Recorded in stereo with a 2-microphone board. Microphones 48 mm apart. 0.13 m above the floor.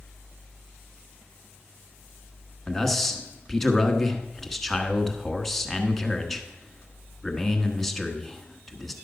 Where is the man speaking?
5° left (ahead or behind), 1.1 m.